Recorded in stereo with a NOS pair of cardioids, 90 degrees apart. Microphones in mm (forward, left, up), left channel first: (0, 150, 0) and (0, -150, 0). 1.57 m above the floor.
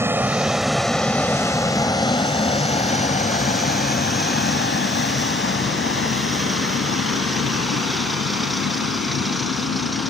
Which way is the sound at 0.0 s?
10° right.